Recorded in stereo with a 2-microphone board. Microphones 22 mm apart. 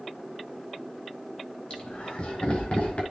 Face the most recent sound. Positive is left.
turn(degrees=60)  # may be behind; listen again after turning